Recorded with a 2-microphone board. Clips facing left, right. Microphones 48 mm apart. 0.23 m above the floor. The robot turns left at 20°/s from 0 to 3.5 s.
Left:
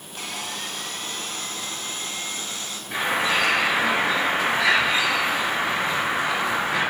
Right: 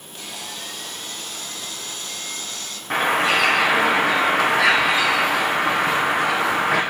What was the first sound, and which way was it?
Sawing, 80° left.